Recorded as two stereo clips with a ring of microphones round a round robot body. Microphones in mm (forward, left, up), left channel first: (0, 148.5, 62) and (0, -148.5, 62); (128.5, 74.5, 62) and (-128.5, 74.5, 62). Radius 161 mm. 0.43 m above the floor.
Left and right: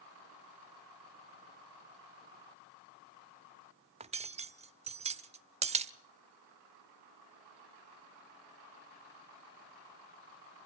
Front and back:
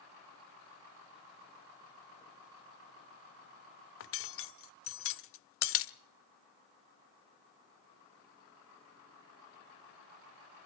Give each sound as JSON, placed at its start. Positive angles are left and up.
{"t": 4.0, "sound": "cutlery clinking", "azimuth_deg": -25, "distance_m": 0.9}